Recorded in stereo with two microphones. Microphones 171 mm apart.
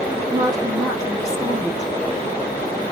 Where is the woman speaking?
20° right (ahead or behind), 4 m.